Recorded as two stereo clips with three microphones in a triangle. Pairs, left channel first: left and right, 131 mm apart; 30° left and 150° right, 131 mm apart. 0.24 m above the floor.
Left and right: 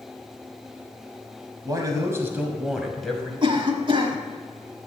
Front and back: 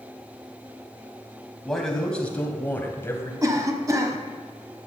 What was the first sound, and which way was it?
A man speaking, 55° right.